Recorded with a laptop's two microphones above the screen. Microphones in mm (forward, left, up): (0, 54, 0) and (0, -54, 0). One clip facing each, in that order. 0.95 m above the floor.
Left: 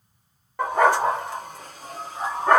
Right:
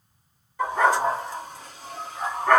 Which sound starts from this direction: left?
A dog barking, at 0.6 s.